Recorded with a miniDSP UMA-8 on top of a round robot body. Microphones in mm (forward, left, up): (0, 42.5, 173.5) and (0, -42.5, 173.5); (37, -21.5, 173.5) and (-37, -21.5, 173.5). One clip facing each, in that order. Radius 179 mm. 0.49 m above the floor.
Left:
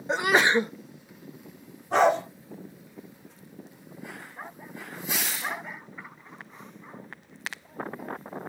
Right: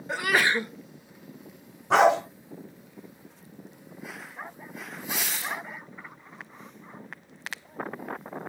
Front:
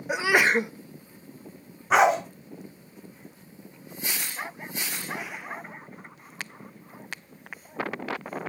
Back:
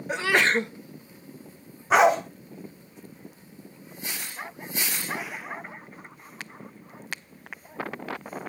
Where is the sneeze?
65° left, 0.8 m.